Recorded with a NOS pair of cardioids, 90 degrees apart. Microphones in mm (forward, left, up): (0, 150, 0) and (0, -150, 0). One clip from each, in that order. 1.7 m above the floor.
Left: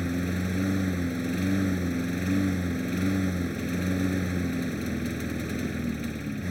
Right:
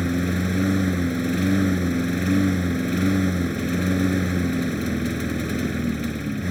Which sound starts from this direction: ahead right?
A lawn mower, at 0.0 s.